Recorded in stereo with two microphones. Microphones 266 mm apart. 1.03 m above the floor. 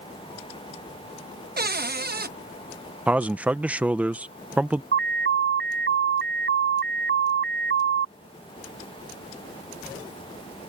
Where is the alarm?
45° right (ahead or behind).